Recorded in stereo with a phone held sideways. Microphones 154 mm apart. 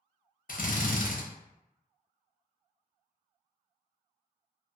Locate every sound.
0.5 s a drill: 60° left (ahead or behind), 0.6 m